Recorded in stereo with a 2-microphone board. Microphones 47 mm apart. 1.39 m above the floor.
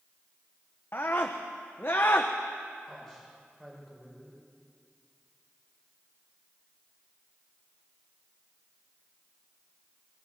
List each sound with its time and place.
0.9 s a scream: 50° left (ahead or behind), 1.0 m
2.9 s a man speaking: 5° left (ahead or behind), 5.5 m